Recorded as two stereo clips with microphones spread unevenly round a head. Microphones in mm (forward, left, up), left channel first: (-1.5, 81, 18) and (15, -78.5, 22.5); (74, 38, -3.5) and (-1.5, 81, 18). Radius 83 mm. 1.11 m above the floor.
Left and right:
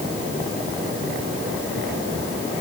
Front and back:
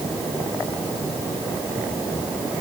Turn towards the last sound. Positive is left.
No sound to turn to.